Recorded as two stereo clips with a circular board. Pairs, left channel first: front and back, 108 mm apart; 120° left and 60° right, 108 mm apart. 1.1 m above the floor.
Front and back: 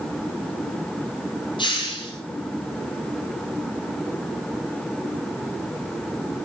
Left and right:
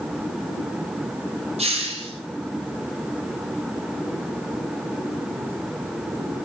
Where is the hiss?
40° right, 5.5 m.